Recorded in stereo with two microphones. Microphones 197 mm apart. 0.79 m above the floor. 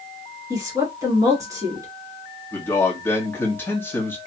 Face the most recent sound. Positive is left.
turn(degrees=10)  # may be behind; listen again after turning